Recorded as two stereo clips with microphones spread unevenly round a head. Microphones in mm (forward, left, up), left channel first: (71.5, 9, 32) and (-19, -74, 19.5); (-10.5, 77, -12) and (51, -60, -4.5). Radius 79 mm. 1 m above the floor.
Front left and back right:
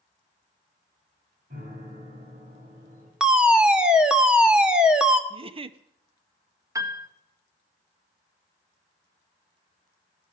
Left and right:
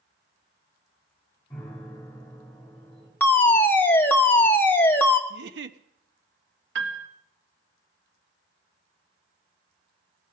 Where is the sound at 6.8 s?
75° right, 1.9 m.